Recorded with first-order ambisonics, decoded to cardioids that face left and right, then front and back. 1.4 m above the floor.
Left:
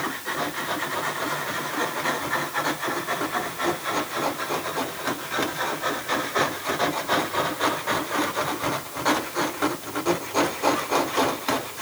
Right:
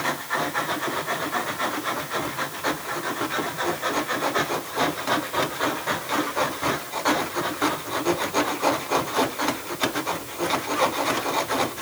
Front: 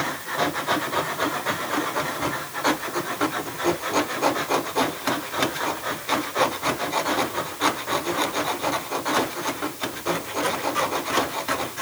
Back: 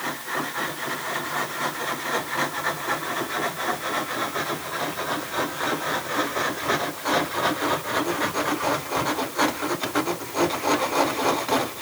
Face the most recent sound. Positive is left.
No sound to turn to.